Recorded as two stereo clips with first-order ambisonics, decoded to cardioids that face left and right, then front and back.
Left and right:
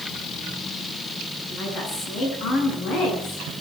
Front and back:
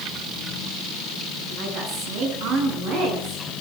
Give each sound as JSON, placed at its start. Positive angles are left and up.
{"t": 1.5, "sound": "a woman speaking", "azimuth_deg": 145, "distance_m": 9.5}